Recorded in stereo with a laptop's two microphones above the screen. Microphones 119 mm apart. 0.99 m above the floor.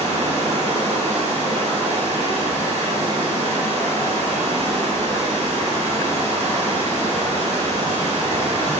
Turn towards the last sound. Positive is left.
turn(degrees=-70)  # may be behind; listen again after turning